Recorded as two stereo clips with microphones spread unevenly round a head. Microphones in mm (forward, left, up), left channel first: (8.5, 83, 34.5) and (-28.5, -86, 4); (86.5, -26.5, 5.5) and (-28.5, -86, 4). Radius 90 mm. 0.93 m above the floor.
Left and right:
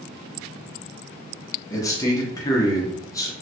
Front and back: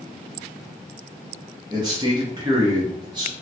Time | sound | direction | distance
1.7 | a man speaking | 155° left | 0.8 m